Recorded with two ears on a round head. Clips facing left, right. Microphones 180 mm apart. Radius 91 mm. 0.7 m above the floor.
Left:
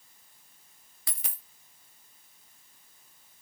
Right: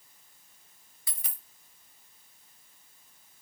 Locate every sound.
1.1 s a dropped coin: 55° left (ahead or behind), 0.7 m